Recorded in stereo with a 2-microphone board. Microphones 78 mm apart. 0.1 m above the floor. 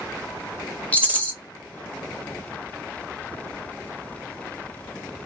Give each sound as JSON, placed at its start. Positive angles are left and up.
{"t": 0.9, "sound": "a rattle", "side_deg": 20, "distance_m": 0.5}